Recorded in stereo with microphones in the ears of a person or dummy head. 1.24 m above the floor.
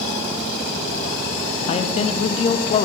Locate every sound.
1.7 s a man speaking: 30° left (ahead or behind), 0.8 m